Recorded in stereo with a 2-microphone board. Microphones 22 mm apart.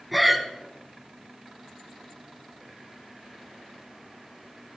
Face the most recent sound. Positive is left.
turn(degrees=0)  # may be behind; listen again after turning